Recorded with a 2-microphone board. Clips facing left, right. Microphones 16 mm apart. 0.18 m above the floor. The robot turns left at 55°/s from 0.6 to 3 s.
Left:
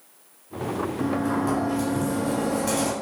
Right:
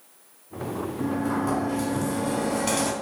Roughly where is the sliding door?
Ahead left.